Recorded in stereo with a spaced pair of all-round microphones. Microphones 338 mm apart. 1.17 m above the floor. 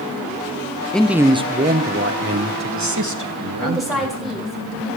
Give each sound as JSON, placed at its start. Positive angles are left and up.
{"t": 0.9, "sound": "a man speaking", "side_deg": 5, "distance_m": 0.9}
{"t": 3.6, "sound": "a woman speaking", "side_deg": 0, "distance_m": 4.5}